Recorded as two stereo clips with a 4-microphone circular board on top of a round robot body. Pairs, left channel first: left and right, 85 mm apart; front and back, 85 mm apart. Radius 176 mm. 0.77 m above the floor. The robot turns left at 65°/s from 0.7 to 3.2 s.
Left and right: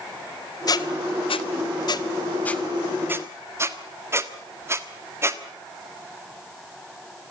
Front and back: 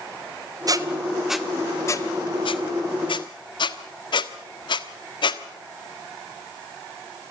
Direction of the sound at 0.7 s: 135° left.